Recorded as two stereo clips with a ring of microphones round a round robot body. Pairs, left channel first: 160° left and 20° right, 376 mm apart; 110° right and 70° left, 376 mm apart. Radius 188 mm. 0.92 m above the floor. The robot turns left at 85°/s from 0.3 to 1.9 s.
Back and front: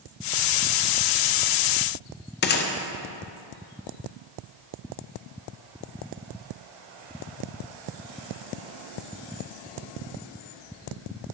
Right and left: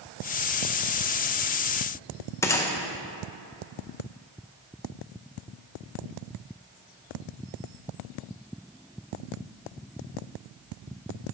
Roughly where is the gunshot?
Behind.